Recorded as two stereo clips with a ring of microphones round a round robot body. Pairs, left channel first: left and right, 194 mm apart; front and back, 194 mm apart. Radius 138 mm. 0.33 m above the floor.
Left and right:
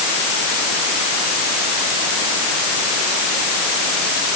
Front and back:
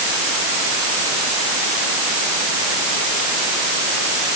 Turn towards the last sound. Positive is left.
No sound to turn to.